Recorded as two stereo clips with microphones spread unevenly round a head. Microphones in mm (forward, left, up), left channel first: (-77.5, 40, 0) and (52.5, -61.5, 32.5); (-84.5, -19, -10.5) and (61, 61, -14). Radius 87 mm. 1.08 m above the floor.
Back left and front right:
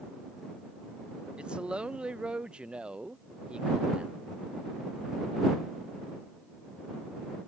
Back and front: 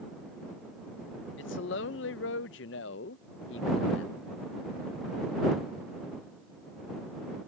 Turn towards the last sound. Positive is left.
turn(degrees=-125)